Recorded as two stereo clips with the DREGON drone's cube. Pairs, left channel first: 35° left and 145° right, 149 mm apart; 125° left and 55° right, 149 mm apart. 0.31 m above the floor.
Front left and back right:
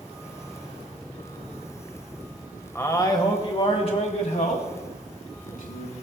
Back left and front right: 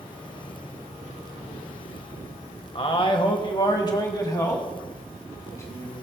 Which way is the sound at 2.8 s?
100° left.